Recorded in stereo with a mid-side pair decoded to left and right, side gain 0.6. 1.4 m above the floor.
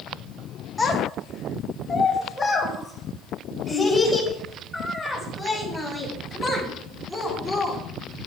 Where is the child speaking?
20° left, 2.5 m; by 7.8 s straight ahead, 9.5 m.